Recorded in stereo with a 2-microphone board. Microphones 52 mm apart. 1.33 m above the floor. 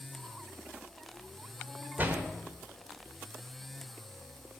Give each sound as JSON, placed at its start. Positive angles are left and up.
{"t": 2.0, "sound": "a door slam", "side_deg": -35, "distance_m": 1.4}